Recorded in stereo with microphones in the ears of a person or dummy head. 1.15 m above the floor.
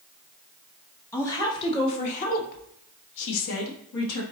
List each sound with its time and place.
1.1 s a woman speaking: 15° left (ahead or behind), 1.3 m; by 4.2 s 90° left, 1.6 m